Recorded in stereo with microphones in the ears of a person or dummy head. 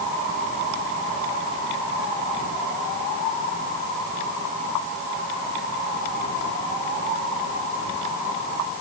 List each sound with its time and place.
Only background noise.